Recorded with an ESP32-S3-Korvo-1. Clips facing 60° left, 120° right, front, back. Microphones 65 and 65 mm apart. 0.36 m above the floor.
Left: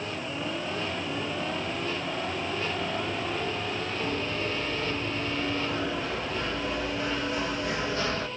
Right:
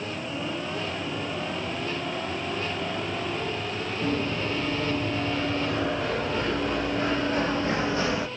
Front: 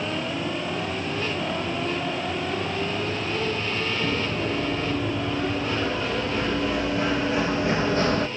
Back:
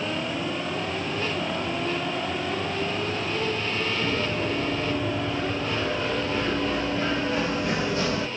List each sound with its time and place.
4.0 s running footsteps: 90° right, 3.5 m; by 8.3 s 40° right, 0.7 m